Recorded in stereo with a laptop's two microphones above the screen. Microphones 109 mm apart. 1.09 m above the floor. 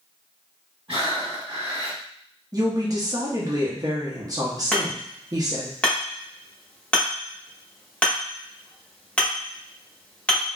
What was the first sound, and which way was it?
Breathing, 55° right (ahead or behind).